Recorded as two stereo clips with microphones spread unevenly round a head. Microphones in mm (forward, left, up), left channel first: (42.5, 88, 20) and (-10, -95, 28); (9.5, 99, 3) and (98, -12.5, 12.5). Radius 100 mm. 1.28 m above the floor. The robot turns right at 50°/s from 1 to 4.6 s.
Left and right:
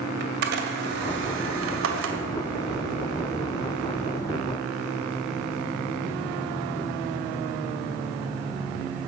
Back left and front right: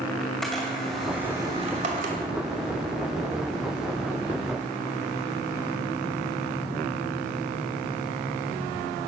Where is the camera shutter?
140° right, 2 m; by 2.2 s 85° right, 2 m.